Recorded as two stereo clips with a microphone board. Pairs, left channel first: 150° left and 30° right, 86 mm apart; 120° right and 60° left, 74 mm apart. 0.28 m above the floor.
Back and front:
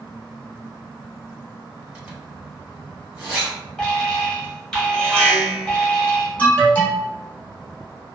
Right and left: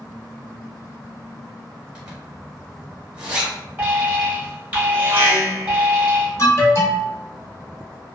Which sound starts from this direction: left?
An alarm, at 3.8 s.